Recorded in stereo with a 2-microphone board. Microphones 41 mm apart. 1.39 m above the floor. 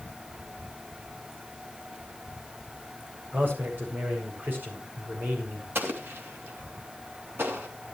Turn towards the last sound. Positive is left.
turn(degrees=-70)  # may be behind; listen again after turning